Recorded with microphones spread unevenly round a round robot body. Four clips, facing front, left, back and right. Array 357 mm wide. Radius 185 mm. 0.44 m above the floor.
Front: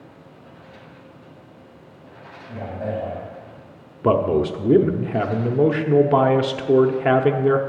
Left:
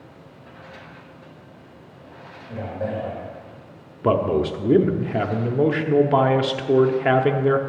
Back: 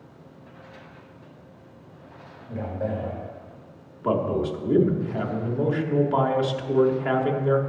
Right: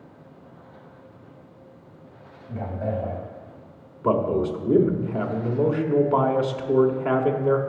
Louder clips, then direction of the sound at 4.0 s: Left 2 dB, front 6 dB; 45° left.